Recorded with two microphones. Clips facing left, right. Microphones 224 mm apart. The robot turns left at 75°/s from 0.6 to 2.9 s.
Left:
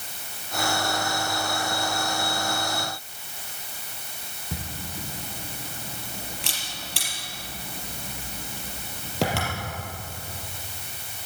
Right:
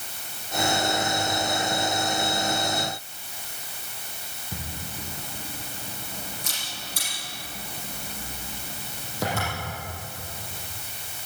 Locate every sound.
4.5 s a camera shutter: 85° left, 4.5 m